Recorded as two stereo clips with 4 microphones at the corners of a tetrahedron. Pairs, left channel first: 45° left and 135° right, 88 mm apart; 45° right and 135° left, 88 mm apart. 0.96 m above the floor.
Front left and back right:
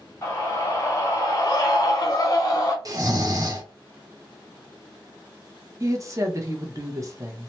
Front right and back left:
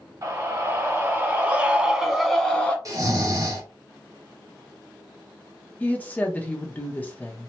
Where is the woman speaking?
105° right, 0.8 m.